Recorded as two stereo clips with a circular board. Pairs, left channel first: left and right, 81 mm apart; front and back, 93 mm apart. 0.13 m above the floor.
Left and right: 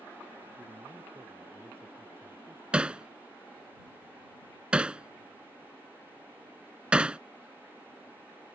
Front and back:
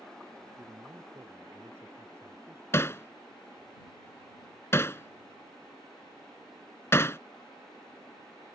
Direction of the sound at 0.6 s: 135° right.